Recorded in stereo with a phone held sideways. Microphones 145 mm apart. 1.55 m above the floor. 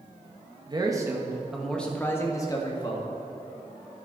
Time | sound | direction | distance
0.7 | a man speaking | 30° right (ahead or behind) | 1.5 m